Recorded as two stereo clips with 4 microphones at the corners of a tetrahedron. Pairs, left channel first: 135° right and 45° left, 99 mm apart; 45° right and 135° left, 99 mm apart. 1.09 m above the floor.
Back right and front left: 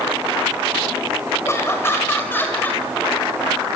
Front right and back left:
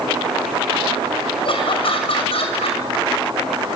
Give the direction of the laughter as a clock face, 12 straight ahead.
2 o'clock.